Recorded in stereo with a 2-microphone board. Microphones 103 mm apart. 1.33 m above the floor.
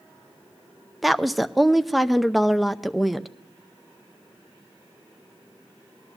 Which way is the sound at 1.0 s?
Centre (ahead or behind).